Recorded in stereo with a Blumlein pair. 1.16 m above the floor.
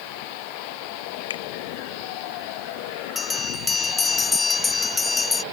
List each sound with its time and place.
1.3 s a finger snap: 65° left
3.1 s a bell: 15° left